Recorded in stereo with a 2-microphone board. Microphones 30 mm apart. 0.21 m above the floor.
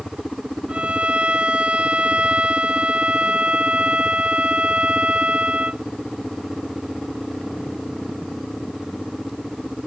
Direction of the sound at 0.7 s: 40° right (ahead or behind).